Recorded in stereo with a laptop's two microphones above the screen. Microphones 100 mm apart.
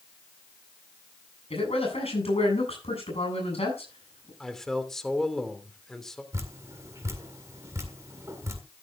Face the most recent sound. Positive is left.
turn(degrees=-30)  # may be behind; listen again after turning